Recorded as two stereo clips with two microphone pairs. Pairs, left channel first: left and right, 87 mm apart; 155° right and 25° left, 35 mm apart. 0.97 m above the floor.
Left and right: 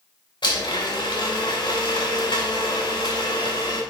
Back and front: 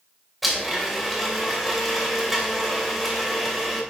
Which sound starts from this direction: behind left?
A blender, at 0.4 s.